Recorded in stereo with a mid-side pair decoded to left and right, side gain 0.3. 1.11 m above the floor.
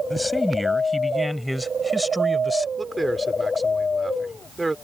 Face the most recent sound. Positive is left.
turn(degrees=-20)